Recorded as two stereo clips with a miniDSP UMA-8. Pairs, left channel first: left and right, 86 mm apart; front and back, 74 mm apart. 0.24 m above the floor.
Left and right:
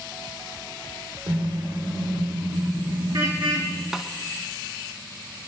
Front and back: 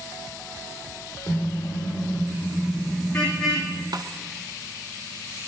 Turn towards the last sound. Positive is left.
turn(degrees=-175)